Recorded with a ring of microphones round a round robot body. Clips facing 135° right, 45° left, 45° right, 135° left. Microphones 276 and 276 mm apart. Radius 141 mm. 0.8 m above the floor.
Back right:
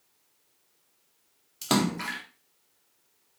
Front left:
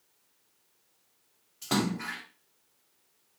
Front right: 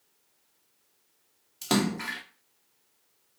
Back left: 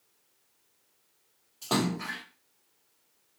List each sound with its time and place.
1.6 s a splash: 100° right, 0.7 m